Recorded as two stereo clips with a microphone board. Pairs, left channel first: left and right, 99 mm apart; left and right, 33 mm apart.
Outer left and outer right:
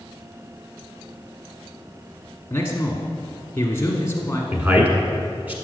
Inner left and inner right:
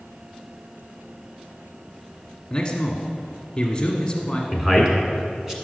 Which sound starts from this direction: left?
A man speaking, at 2.5 s.